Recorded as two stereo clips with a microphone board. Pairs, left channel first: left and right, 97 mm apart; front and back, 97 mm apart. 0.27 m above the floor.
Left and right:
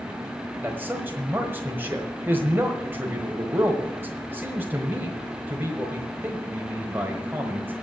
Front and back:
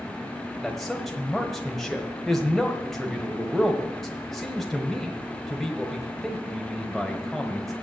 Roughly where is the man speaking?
Right.